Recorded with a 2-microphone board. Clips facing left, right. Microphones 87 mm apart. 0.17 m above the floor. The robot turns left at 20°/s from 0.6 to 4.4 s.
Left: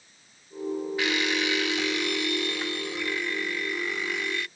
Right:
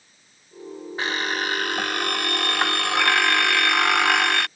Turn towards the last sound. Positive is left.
turn(degrees=-105)